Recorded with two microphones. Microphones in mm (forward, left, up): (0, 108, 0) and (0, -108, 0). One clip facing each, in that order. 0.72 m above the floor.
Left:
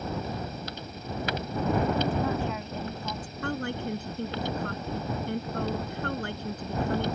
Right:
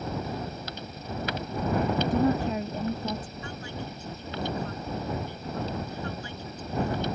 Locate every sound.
2.1 s a woman speaking: 40° right (ahead or behind)
3.4 s a woman speaking: 65° left (ahead or behind)